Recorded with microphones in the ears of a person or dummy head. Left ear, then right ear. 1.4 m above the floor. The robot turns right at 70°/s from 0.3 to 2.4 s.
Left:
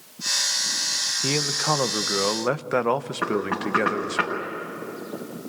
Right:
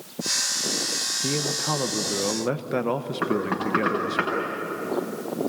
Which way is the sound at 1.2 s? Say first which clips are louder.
Left 3 dB; 60° left.